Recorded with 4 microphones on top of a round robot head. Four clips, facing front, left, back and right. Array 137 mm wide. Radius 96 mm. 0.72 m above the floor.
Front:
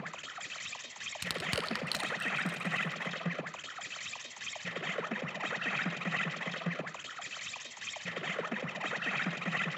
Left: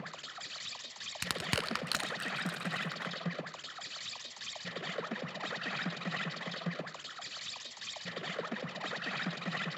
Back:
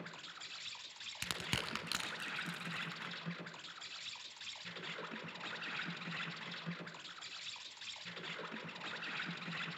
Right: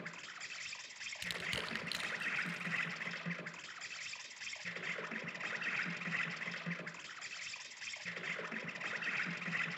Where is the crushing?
90° left, 1.3 m.